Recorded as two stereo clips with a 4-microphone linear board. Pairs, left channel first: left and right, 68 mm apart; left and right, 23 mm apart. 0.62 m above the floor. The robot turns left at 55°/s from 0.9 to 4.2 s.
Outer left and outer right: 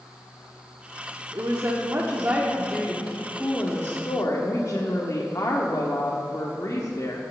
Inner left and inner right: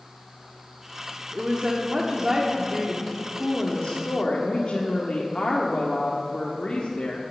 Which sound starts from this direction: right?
A woman speaking, at 1.3 s.